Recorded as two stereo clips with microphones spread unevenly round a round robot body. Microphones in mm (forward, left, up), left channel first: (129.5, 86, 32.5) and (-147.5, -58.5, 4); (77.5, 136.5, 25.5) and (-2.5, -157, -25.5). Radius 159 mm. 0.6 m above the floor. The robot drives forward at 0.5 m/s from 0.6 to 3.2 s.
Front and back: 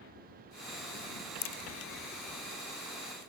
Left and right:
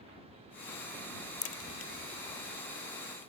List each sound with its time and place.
1.4 s a crack: 25° left; by 3.3 s 45° left